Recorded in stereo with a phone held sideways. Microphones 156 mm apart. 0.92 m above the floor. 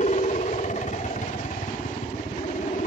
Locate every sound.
0.0 s a helicopter: 50° left (ahead or behind)